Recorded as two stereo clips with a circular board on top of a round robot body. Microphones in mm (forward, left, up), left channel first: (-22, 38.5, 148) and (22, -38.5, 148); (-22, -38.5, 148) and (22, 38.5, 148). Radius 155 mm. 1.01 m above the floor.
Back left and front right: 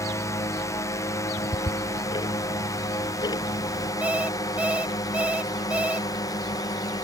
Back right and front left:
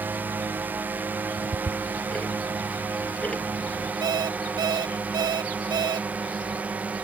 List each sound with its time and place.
0.0 s a drone: 110° left; by 7.0 s 125° left
1.4 s ticking: 165° left
4.0 s an alarm clock: 15° left